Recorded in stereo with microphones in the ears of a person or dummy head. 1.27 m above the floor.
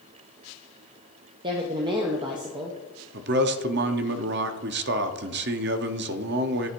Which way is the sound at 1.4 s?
20° right (ahead or behind).